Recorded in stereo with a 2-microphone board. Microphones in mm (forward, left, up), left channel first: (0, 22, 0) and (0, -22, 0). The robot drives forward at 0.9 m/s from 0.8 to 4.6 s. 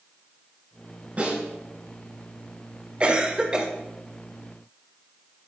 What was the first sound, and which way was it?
A snare drum, 35° right (ahead or behind).